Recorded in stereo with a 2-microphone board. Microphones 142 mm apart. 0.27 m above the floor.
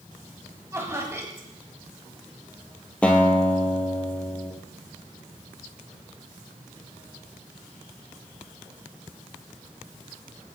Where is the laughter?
20° right (ahead or behind), 2 m.